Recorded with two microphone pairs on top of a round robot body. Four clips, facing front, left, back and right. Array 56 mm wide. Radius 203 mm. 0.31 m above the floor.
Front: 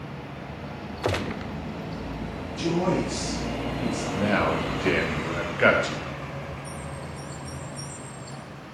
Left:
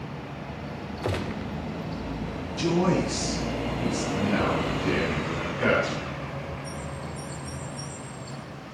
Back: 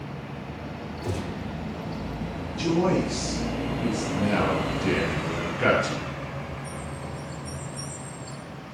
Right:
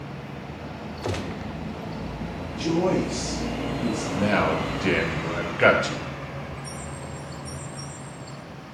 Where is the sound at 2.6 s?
95° left, 6.5 m.